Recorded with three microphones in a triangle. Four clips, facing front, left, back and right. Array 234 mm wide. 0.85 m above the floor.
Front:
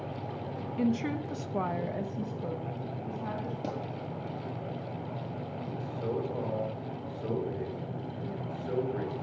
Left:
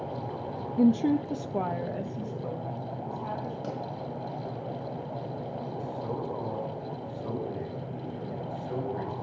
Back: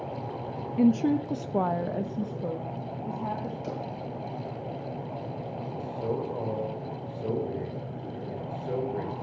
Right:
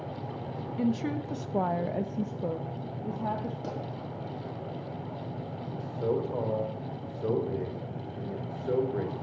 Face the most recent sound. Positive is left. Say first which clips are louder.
# right 8 dB, back 3 dB
turn(degrees=-105)